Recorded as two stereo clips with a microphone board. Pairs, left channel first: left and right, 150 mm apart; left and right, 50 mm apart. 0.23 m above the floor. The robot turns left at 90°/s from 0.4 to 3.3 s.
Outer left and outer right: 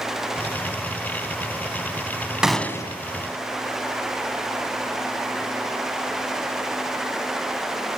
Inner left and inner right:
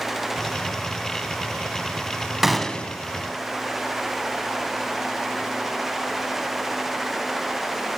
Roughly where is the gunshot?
Behind.